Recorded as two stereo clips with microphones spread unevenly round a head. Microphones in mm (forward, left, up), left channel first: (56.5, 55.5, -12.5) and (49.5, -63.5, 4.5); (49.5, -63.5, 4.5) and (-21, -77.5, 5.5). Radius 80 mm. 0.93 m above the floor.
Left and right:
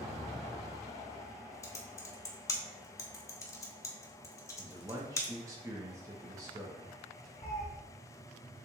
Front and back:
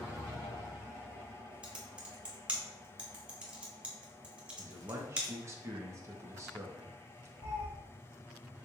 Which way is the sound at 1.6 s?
140° left.